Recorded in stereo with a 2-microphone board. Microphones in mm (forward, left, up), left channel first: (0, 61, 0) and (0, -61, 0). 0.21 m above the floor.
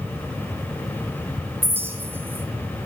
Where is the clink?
20° right (ahead or behind), 0.9 m.